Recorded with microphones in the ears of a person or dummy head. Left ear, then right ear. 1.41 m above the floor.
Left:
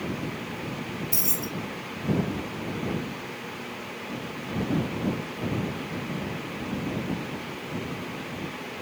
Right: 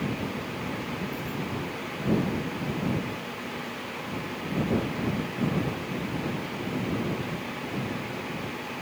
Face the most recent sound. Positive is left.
turn(degrees=75)  # may be behind; listen again after turning